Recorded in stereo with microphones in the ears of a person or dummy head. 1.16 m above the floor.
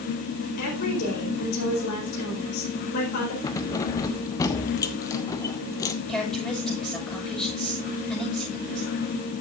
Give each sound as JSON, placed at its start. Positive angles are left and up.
{"t": 0.6, "sound": "a woman speaking", "side_deg": 55, "distance_m": 4.5}
{"t": 3.4, "sound": "keys jangling", "side_deg": 20, "distance_m": 0.7}
{"t": 6.1, "sound": "a woman speaking", "side_deg": 0, "distance_m": 6.5}